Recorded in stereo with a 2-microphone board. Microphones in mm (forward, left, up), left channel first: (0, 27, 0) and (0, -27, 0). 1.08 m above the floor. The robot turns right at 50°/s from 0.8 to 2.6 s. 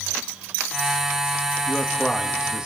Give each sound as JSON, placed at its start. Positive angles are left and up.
{"t": 1.7, "sound": "a man speaking", "azimuth_deg": 150, "distance_m": 1.9}